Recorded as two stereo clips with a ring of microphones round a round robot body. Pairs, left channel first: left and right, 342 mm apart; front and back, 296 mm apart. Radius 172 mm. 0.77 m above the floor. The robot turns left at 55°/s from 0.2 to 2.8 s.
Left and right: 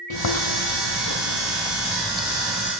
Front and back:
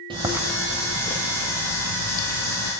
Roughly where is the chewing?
Left.